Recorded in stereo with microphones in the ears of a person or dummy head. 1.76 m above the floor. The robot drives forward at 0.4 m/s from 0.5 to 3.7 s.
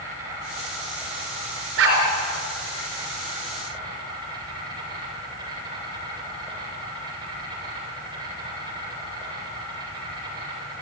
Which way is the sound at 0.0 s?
20° right (ahead or behind).